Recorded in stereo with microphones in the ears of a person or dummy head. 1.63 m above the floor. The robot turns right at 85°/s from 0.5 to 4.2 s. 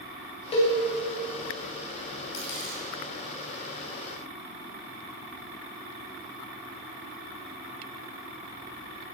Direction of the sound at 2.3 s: 70° left (ahead or behind).